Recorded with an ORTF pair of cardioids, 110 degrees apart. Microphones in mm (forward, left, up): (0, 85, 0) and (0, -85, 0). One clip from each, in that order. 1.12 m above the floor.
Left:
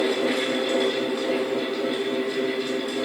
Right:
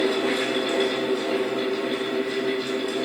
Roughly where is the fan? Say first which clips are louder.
Even; ahead right.